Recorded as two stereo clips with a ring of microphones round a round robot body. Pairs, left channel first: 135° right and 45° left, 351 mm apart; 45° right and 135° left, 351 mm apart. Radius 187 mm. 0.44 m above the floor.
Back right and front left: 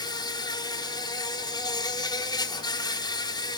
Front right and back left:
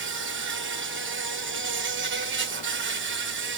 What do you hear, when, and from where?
0.0 s an insect: 155° left, 1.9 m